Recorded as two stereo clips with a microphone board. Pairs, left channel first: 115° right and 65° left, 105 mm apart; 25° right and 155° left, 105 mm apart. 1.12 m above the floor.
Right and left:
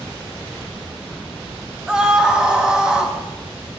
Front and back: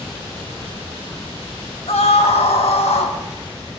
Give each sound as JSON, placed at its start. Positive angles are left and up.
{"t": 1.9, "sound": "a scream", "azimuth_deg": -15, "distance_m": 1.8}